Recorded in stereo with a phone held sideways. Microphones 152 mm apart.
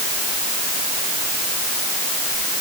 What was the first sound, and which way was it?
Only background noise.